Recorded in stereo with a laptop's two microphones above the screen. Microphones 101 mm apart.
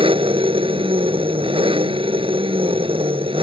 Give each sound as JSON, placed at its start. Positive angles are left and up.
{"t": 0.0, "sound": "an engine running", "side_deg": -65}